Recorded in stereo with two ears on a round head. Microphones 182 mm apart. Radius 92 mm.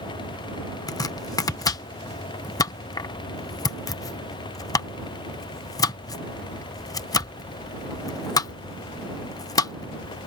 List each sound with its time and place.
0.9 s chopping: 15° left (ahead or behind)